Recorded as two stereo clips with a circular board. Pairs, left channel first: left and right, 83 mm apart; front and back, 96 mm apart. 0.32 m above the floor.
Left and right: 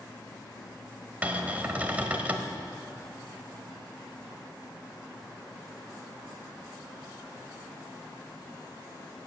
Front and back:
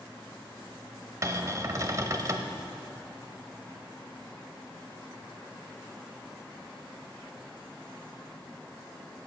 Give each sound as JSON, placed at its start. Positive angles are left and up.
{"t": 1.2, "sound": "a cupboard door", "azimuth_deg": -150, "distance_m": 1.2}